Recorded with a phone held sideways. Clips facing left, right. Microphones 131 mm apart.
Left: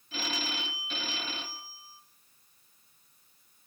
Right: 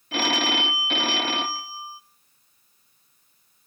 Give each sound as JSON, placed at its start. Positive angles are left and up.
{"t": 0.1, "sound": "a phone ringing", "side_deg": -70, "distance_m": 0.5}